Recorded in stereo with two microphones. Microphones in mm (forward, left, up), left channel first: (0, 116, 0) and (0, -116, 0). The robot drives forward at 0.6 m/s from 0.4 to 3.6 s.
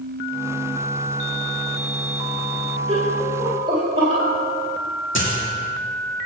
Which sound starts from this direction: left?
A dropped coin, at 5.2 s.